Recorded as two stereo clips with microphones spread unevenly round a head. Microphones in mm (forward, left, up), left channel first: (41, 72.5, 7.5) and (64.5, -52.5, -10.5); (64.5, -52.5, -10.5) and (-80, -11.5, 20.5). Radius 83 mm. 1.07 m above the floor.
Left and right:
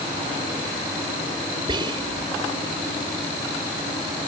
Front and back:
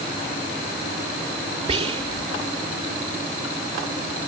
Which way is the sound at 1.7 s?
145° right.